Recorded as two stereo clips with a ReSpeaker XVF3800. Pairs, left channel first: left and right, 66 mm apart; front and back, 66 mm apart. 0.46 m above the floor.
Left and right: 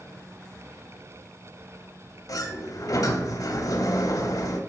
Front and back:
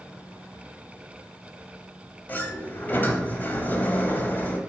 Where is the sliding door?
60° left, 0.5 m.